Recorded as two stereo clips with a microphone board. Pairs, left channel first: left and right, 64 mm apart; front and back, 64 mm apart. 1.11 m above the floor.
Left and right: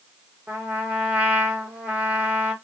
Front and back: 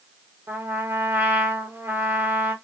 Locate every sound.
0.5 s a trumpet: 145° right, 0.9 m